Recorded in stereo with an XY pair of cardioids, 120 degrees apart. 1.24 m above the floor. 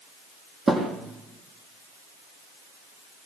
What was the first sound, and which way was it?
A thud, 20° right.